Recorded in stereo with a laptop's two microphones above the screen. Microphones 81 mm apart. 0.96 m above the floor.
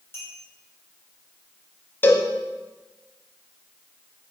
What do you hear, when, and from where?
0.1 s a clink: 30° left (ahead or behind), 3 m
2.0 s a cowbell: 25° left (ahead or behind), 0.9 m